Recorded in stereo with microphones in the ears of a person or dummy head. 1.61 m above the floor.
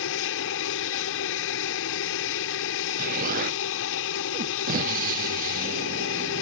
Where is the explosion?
45° right (ahead or behind).